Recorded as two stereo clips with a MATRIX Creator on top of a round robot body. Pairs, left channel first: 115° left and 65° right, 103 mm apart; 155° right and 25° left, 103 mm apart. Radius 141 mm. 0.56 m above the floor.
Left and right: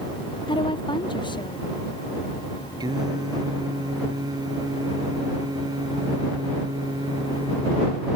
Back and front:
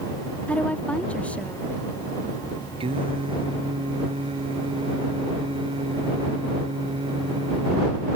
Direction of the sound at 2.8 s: 15° right.